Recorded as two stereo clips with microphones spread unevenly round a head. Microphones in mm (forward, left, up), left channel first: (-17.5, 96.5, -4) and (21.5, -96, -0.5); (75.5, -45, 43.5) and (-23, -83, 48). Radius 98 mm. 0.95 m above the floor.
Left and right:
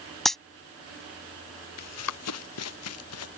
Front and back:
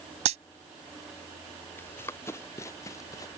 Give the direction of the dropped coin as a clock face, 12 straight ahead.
6 o'clock.